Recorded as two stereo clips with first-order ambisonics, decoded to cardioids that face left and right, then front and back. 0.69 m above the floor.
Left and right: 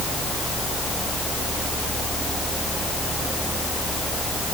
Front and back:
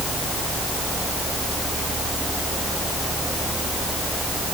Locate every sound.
Only background noise.